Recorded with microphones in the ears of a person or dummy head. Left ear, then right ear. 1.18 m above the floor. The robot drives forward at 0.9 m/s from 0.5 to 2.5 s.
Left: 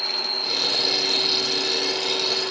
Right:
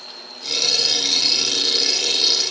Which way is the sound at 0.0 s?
45° left (ahead or behind).